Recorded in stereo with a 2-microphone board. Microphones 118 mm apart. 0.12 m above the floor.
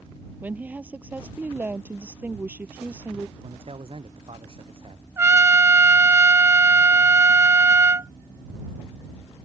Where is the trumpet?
25° right (ahead or behind).